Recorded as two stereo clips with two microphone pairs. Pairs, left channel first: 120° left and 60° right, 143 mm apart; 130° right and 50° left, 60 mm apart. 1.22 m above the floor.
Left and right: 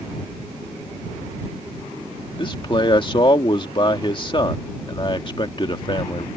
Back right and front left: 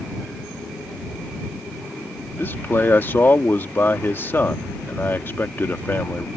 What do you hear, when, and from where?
2.4 s a man speaking: 175° left